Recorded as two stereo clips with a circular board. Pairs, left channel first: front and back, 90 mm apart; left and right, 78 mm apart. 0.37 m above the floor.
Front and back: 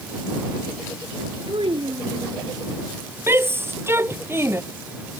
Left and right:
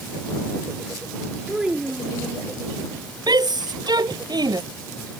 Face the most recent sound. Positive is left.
turn(degrees=-120)